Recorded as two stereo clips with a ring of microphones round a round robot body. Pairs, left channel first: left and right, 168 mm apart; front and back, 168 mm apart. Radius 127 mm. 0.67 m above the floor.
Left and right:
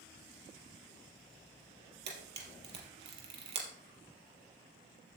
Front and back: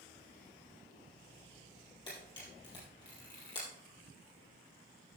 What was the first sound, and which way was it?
A camera shutter, 75° right.